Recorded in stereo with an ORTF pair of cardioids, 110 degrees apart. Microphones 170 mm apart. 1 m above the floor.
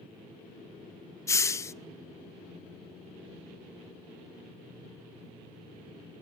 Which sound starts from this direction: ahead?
A hiss, at 1.3 s.